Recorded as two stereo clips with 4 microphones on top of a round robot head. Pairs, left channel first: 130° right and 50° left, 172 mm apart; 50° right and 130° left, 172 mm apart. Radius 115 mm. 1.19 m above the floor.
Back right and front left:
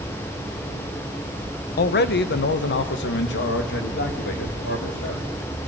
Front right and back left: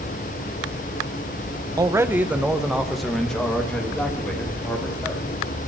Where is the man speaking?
160° right, 0.7 m; by 5.3 s 130° right, 3 m.